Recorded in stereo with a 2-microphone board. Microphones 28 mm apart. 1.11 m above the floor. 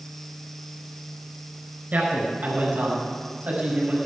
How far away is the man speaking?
About 5 m.